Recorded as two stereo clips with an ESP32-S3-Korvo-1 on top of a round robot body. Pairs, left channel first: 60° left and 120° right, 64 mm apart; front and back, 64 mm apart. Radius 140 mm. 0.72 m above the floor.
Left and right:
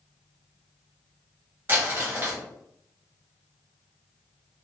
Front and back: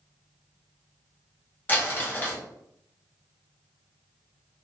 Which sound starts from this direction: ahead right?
Crumpling, at 1.7 s.